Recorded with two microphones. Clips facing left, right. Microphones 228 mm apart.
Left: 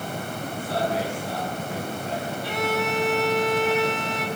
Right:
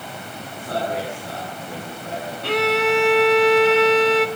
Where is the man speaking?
60° right (ahead or behind), 9.5 m.